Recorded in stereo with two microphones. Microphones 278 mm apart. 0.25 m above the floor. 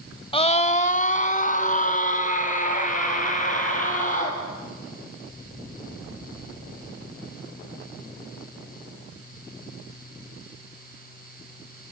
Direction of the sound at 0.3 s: 20° left (ahead or behind).